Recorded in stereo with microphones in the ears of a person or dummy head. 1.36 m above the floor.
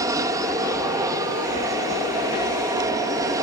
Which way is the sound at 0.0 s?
15° right (ahead or behind).